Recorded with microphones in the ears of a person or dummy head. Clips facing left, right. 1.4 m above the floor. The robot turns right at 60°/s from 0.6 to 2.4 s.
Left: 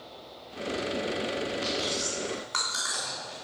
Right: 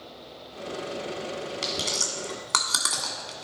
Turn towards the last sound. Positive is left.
turn(degrees=-65)  # may be behind; listen again after turning